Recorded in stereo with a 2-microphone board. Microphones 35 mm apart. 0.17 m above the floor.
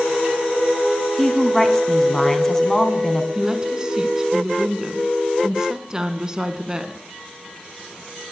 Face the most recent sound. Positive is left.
turn(degrees=-20)  # may be behind; listen again after turning